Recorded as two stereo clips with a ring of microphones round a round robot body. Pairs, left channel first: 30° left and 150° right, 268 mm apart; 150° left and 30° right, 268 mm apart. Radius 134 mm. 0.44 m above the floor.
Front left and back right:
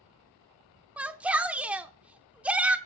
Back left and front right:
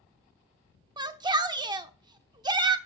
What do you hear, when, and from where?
1.0 s a shout: 75° right, 0.7 m